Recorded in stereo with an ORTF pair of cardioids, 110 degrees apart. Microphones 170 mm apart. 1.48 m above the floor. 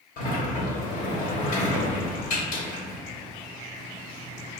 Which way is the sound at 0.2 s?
60° left.